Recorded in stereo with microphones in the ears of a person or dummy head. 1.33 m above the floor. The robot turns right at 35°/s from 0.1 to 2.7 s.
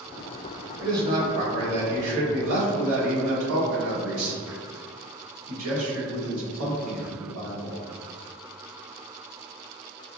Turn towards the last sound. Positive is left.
turn(degrees=-95)